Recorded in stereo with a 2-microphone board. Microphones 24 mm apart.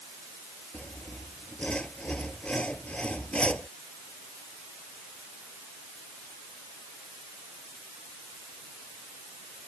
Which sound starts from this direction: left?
Sawing, at 0.7 s.